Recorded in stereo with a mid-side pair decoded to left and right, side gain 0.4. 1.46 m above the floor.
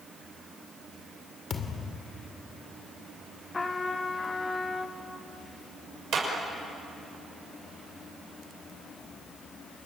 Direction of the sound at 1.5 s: 60° left.